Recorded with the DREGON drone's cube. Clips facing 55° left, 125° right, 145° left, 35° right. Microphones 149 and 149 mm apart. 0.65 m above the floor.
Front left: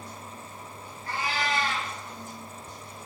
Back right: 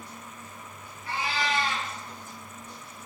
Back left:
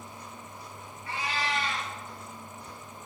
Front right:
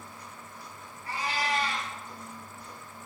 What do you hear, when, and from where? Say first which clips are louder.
1.1 s a cat meowing: even, front right 1 dB; 15° left, 1.8 m